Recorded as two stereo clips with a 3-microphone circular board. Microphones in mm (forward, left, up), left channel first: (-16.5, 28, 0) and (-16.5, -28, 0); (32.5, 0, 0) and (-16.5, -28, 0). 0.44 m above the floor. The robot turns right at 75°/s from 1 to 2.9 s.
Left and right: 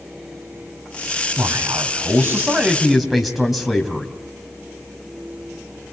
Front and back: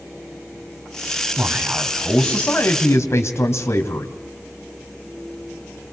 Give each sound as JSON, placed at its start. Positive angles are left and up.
{"t": 1.4, "sound": "a man speaking", "azimuth_deg": -120, "distance_m": 2.5}